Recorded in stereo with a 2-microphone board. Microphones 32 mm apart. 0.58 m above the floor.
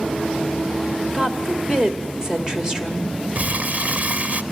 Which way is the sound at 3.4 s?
50° right (ahead or behind).